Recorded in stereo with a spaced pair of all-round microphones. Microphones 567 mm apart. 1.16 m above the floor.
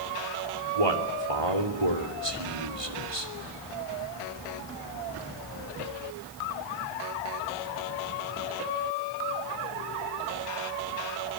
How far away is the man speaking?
About 3 m.